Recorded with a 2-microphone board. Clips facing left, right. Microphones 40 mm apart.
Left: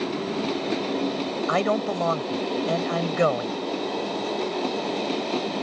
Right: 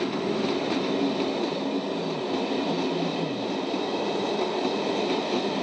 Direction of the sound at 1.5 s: 80° left.